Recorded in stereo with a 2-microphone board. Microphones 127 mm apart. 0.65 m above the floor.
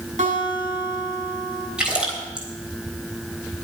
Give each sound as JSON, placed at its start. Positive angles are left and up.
{"t": 0.2, "sound": "a guitar", "side_deg": -75, "distance_m": 6.0}
{"t": 1.8, "sound": "a splash", "side_deg": -5, "distance_m": 4.0}